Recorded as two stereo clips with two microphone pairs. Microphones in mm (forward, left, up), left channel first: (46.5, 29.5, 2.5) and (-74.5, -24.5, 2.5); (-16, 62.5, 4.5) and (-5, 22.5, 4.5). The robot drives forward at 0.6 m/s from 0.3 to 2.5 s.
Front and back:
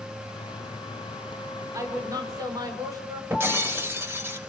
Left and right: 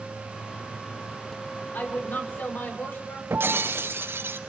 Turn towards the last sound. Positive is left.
turn(degrees=-85)